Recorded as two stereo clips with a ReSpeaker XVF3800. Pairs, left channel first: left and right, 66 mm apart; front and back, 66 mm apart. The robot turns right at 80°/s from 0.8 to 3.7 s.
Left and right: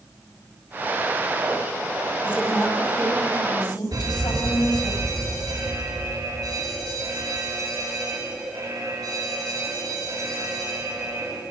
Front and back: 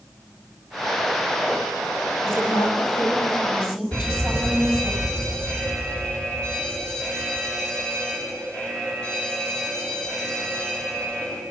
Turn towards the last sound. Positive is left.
turn(degrees=-75)